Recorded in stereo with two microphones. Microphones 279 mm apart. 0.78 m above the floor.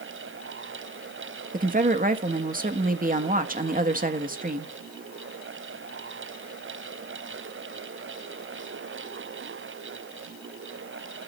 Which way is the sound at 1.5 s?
30° right (ahead or behind).